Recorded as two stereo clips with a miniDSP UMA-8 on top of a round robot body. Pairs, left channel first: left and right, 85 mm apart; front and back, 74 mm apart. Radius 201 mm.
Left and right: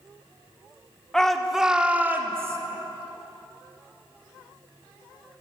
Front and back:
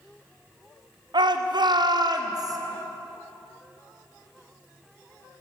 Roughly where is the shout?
Behind.